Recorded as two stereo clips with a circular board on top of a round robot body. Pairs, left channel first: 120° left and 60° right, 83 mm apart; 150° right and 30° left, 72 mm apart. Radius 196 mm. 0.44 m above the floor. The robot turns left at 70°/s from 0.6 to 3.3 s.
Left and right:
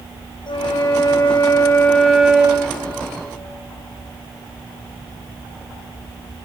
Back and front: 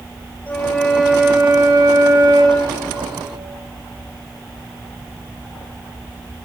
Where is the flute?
140° left, 3 m; by 2.7 s 5° right, 3 m.